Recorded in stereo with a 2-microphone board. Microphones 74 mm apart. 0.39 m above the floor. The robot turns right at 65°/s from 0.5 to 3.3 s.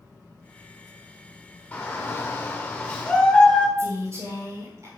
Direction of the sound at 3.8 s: 45° right (ahead or behind).